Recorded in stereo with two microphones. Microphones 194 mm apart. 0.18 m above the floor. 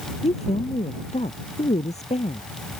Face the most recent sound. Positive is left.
turn(degrees=35)  # may be behind; listen again after turning